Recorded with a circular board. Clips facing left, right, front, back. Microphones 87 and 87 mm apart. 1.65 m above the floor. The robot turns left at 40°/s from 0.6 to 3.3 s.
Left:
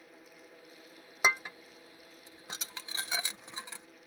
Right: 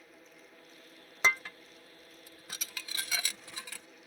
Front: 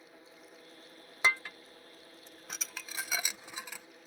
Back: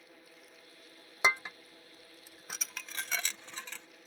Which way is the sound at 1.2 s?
150° left.